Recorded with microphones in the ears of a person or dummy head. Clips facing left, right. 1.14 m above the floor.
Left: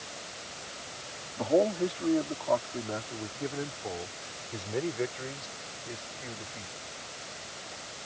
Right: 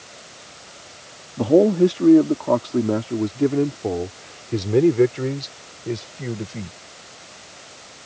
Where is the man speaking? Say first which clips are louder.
Right 11 dB; 55° right (ahead or behind); by 6.8 s 75° right (ahead or behind).